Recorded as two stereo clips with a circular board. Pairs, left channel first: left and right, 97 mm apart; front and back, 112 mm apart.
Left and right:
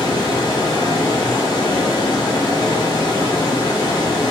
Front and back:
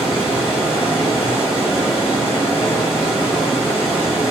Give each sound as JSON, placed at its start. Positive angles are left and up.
{"t": 0.0, "sound": "running water", "azimuth_deg": 105, "distance_m": 1.7}